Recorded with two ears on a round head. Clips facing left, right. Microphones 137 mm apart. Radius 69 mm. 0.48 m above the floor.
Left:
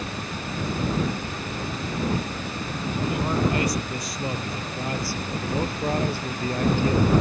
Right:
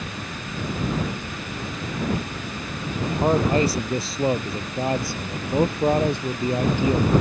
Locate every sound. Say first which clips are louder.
3.0 s a man speaking: right 5 dB; 30° right (ahead or behind); by 7.1 s 15° right (ahead or behind)